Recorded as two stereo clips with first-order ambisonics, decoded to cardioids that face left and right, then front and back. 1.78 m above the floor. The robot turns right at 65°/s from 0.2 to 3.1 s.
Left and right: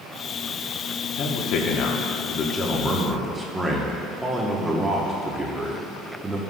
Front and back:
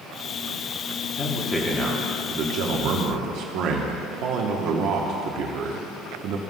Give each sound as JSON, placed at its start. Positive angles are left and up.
{"t": 1.1, "sound": "a man speaking", "azimuth_deg": 60, "distance_m": 1.0}